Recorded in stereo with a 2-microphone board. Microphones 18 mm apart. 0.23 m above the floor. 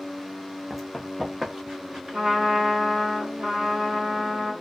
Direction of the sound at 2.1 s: 60° right (ahead or behind).